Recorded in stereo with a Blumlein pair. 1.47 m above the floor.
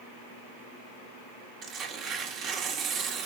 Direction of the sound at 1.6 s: 25° right.